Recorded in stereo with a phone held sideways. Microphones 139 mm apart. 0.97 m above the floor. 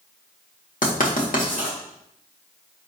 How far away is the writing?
About 1.9 m.